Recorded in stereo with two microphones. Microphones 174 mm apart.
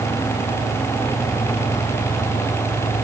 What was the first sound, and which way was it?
Only background noise.